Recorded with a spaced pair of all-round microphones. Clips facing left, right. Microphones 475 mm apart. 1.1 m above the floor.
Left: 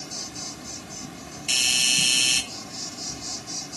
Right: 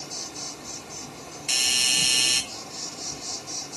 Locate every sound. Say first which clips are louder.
0.0 s an insect: left 1 dB; 35° left (ahead or behind), 1.5 m
1.5 s a doorbell: left 1 dB; 50° left (ahead or behind), 1.7 m